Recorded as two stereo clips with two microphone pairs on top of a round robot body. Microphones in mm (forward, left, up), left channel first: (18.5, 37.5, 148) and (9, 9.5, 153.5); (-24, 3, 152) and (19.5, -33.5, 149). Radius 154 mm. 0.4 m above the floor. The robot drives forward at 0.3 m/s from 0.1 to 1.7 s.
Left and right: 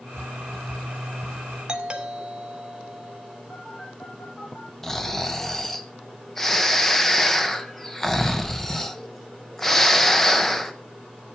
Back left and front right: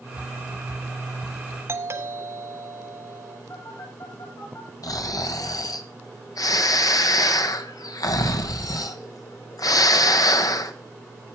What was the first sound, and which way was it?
A doorbell, 45° right.